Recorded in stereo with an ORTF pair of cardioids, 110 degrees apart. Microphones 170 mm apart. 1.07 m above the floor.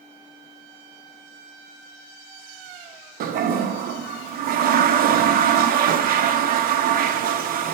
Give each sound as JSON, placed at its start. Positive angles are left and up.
{"t": 3.2, "sound": "a toilet flushing", "azimuth_deg": -60, "distance_m": 0.7}